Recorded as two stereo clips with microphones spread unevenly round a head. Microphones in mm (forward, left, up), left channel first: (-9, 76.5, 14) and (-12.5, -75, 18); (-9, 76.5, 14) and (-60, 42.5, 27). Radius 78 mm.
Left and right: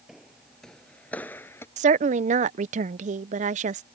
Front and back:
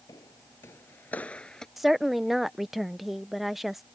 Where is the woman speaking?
55° right.